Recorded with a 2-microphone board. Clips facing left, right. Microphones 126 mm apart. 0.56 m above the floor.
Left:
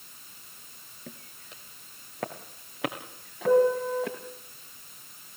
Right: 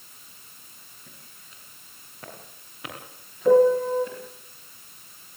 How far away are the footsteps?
About 3 m.